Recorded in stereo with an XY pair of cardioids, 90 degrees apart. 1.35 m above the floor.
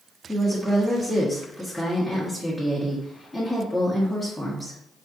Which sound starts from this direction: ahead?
A woman speaking, at 0.3 s.